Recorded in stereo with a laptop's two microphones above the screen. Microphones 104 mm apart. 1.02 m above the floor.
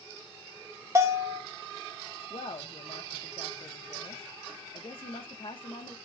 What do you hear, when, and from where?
0.9 s a bell: 25° right (ahead or behind), 2 m
2.3 s a woman speaking: 60° left (ahead or behind), 1.2 m